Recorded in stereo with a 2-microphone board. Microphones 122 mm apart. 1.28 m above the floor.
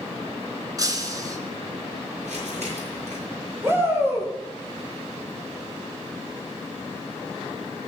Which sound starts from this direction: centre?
A shout, at 3.6 s.